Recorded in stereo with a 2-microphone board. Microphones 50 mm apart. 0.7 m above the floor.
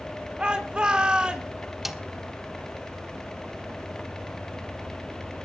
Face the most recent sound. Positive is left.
turn(degrees=-5)  # may be behind; listen again after turning